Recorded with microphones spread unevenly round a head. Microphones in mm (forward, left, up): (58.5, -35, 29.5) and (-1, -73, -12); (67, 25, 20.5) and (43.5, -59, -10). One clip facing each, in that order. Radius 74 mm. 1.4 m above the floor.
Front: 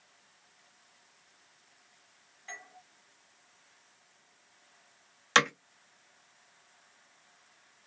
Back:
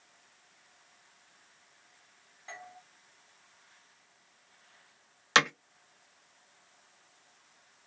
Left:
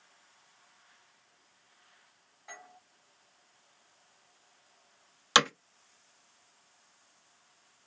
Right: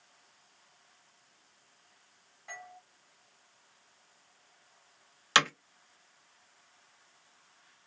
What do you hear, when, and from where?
2.5 s a doorbell: 175° left, 0.9 m
5.3 s hammering: 80° left, 0.5 m